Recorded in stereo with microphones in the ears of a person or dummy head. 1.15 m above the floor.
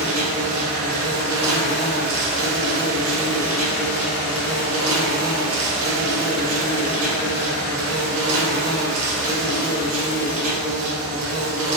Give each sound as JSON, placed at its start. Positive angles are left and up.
{"t": 0.0, "sound": "an insect", "side_deg": -85, "distance_m": 0.9}